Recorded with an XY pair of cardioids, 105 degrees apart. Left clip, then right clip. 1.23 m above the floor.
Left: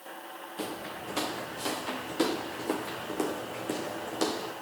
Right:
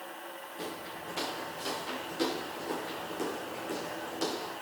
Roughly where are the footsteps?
Ahead left.